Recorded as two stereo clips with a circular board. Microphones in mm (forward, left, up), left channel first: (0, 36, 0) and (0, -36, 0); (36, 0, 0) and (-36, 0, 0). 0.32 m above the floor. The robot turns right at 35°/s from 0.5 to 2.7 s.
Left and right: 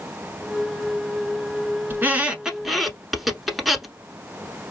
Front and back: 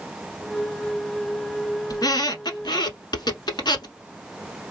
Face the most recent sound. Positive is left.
turn(degrees=0)